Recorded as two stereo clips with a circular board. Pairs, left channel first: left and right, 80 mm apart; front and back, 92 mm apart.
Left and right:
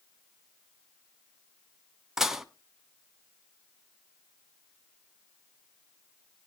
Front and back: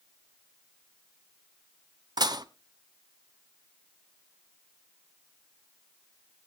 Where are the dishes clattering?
175° right, 0.9 m.